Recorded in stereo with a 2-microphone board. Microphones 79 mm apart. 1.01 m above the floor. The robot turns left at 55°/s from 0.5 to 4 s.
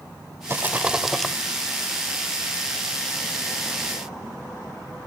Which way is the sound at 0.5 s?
145° right.